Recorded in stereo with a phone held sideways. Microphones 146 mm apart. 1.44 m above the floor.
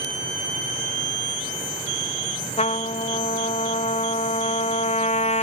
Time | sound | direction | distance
2.6 | a trumpet | 50° left (ahead or behind) | 0.5 m